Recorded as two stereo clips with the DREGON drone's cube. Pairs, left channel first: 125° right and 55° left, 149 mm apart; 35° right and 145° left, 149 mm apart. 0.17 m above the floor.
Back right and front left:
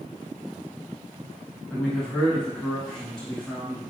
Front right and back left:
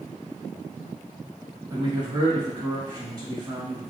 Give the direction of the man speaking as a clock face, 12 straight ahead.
7 o'clock.